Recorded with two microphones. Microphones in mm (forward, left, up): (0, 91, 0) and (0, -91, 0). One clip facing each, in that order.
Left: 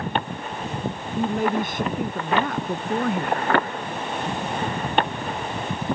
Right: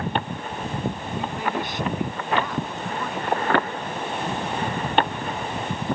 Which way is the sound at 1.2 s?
50° left (ahead or behind).